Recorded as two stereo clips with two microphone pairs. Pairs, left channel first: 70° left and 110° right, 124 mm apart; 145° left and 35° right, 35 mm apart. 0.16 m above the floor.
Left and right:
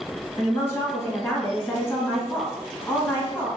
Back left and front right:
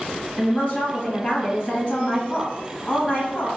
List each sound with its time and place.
0.4 s a woman speaking: 125° left, 1.7 m